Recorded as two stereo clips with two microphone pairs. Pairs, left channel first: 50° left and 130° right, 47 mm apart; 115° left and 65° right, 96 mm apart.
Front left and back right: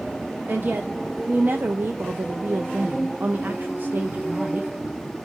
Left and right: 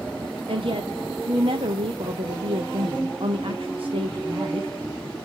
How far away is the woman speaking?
About 0.5 m.